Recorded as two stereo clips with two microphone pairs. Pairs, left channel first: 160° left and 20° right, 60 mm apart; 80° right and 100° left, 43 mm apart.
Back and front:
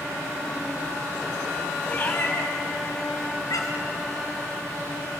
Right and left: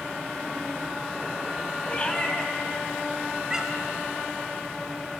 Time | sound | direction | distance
1.9 | a cat meowing | 135° right | 1.8 m